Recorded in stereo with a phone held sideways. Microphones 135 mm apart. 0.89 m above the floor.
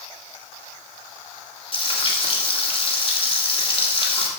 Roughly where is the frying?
Left.